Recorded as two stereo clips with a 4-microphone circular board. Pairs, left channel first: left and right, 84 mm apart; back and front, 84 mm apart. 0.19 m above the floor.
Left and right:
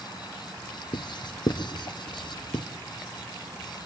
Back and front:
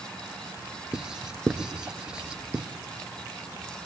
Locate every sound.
0.9 s writing: 80° left, 1.3 m